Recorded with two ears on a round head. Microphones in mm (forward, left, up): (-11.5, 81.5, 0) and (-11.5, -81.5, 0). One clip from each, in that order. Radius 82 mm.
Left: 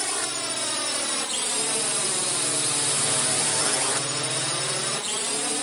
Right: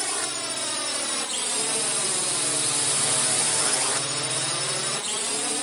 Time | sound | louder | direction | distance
0.0 | a drone | left 1 dB | centre (ahead or behind) | ?